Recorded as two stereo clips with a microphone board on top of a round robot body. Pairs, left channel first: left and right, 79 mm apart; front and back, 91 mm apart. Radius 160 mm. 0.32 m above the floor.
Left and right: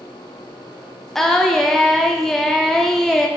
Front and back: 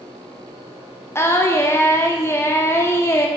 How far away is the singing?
About 1.3 m.